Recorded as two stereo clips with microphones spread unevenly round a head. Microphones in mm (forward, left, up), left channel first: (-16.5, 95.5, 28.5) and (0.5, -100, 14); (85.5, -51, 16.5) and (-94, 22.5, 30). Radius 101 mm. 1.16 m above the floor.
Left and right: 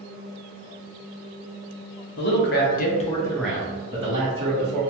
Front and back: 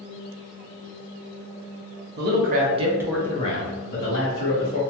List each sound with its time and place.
2.2 s a man speaking: 125° left, 0.9 m; by 4.8 s 35° right, 1.3 m